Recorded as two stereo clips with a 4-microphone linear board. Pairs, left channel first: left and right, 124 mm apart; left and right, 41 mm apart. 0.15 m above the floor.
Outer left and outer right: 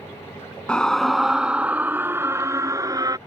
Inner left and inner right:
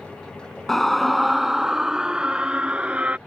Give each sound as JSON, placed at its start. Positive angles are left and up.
{"t": 0.7, "sound": "a scream", "side_deg": 10}